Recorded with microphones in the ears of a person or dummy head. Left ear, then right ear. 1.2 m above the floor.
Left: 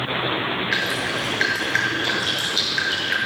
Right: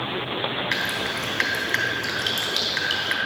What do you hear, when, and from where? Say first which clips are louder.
0.7 s dripping: left 2 dB; 60° right (ahead or behind), 3 m